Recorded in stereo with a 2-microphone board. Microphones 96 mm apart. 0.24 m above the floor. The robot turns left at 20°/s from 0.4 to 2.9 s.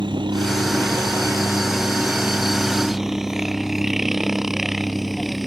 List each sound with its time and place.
0.0 s a helicopter: 55° right (ahead or behind); by 5.5 s centre (ahead or behind)